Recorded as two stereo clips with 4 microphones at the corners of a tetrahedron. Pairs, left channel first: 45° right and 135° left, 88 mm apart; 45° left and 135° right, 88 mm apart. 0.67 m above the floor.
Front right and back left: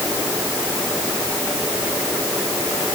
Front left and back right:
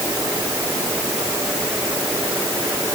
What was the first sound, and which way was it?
Only background noise.